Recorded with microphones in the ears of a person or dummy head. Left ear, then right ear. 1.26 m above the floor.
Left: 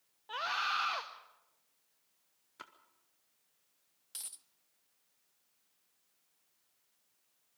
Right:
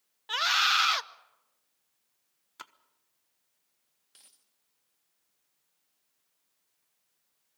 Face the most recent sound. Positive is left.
turn(degrees=25)  # may be behind; listen again after turning